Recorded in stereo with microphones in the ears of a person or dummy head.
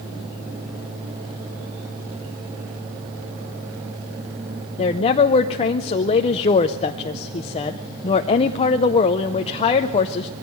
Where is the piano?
I don't hear a piano.